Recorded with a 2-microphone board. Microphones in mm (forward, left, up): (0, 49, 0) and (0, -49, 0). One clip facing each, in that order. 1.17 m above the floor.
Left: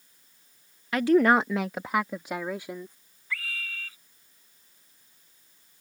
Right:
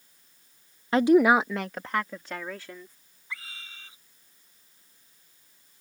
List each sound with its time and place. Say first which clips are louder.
0.9 s a woman speaking: right 2 dB; 30° right (ahead or behind); by 3.0 s 20° left (ahead or behind)
3.3 s a scream: left 6 dB; 20° right (ahead or behind)